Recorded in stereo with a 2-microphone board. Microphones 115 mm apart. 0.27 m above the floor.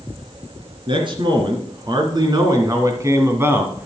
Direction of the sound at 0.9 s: 50° right (ahead or behind).